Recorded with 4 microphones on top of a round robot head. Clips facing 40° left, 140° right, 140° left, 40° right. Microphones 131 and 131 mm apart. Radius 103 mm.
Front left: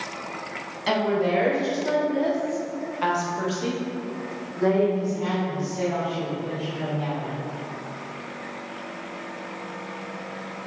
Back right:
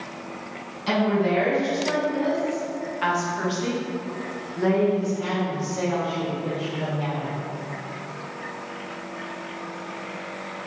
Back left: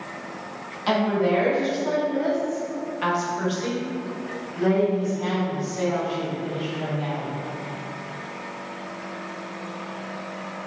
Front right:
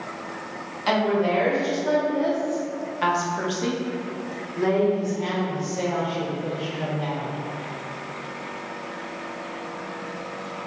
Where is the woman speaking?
45° left, 1.9 m; by 7.3 s 85° right, 3 m.